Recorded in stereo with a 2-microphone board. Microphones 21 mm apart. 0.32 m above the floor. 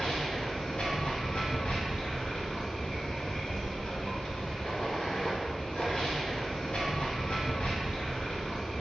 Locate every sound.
0.0 s running water: 45° left (ahead or behind), 0.9 m